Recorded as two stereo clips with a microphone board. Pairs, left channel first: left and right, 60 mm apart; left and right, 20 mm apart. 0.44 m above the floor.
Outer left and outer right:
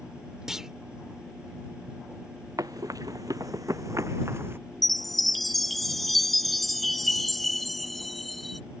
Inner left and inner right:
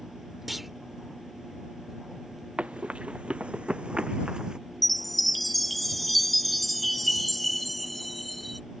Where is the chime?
Centre (ahead or behind).